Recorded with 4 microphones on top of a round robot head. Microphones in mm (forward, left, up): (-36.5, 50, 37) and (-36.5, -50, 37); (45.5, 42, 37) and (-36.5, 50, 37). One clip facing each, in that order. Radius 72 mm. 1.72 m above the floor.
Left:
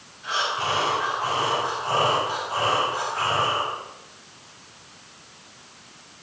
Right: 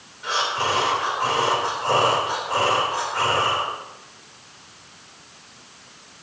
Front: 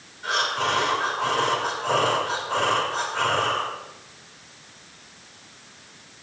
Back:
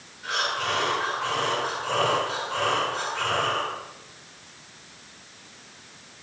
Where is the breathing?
65° right, 3.5 m.